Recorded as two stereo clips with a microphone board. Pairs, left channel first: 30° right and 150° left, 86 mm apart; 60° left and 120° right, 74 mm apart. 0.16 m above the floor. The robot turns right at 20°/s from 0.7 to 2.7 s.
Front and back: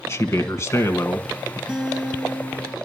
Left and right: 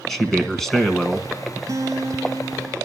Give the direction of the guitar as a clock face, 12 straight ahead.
4 o'clock.